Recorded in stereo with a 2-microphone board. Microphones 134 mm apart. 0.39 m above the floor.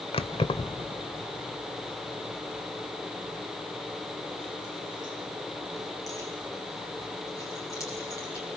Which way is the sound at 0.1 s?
45° left (ahead or behind).